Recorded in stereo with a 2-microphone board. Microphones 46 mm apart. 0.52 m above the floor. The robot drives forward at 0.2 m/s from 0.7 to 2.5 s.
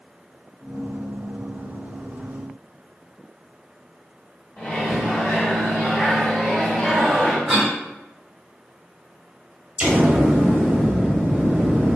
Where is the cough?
10° right (ahead or behind), 1.4 m.